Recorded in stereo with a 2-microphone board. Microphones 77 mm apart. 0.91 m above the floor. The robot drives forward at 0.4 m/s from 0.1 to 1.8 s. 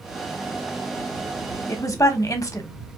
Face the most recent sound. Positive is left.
turn(degrees=50)  # may be behind; listen again after turning